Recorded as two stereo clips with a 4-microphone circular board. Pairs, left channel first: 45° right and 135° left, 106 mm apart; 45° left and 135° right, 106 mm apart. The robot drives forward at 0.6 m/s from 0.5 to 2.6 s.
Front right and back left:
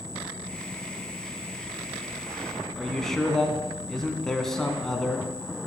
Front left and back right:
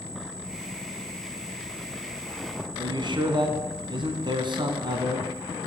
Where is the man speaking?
130° right, 1.7 m.